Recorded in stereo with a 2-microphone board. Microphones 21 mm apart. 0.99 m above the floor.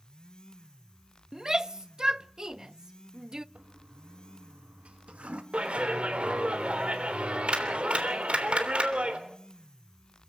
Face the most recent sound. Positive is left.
turn(degrees=-65)  # may be behind; listen again after turning